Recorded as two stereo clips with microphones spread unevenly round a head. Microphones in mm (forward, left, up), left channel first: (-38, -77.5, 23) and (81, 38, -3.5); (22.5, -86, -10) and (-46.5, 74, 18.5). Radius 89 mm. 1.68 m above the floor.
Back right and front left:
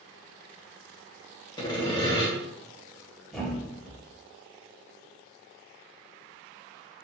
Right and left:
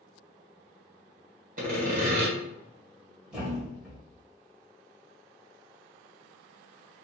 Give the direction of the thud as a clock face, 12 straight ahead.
7 o'clock.